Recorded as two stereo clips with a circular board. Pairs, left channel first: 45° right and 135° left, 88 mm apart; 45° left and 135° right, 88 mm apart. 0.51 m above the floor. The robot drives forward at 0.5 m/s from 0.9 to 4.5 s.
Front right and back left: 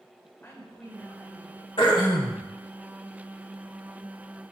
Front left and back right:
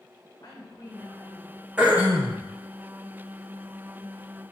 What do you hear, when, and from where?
0.4 s a woman speaking: 15° left, 1.8 m; by 1.7 s 20° left, 1.5 m
1.8 s throat clearing: 55° right, 0.9 m; by 2.4 s 75° right, 0.8 m